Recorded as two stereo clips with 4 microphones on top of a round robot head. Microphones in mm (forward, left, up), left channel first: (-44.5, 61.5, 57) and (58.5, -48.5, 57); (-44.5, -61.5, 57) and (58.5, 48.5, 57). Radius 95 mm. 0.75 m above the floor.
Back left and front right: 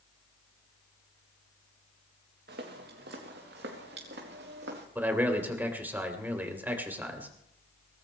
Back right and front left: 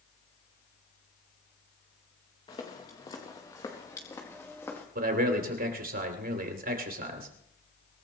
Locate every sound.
2.5 s footsteps: 75° right, 3.5 m; by 4.8 s 60° right, 4.5 m
5.0 s a man speaking: 30° left, 3 m